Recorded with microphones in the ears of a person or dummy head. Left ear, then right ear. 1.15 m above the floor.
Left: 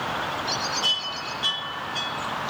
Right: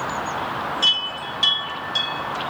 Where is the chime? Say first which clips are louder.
Right 9 dB; 45° right (ahead or behind), 1.0 m.